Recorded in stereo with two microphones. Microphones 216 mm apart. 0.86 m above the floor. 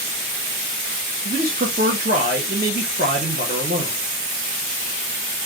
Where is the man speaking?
45° right (ahead or behind), 0.9 m.